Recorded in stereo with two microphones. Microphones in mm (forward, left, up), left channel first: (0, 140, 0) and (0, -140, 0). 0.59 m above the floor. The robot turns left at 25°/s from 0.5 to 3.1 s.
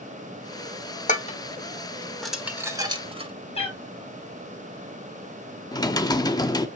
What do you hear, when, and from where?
1.1 s dishes clattering: 25° left (ahead or behind), 1.2 m; by 3.3 s 20° right (ahead or behind), 1.2 m
3.5 s a cat meowing: 20° left (ahead or behind), 2.0 m
5.7 s typing on a keyboard: 15° left (ahead or behind), 0.7 m